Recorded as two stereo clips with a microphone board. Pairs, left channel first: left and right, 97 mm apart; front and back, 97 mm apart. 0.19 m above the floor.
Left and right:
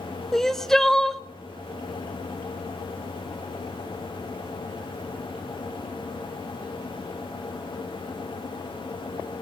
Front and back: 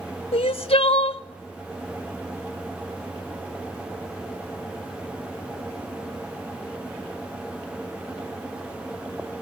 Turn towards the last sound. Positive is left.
turn(degrees=5)